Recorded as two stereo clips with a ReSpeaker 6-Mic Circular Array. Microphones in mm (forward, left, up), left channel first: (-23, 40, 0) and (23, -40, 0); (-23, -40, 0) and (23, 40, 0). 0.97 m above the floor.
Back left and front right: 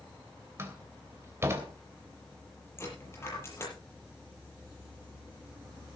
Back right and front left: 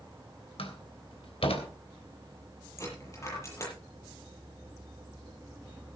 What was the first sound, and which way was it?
A door slam, 120° right.